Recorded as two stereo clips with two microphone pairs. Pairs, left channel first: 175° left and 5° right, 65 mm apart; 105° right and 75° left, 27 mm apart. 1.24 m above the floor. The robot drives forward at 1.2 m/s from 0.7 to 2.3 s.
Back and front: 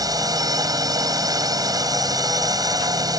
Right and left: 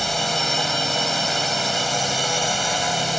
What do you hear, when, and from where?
0.0 s a drone: 15° right; by 3.2 s 10° right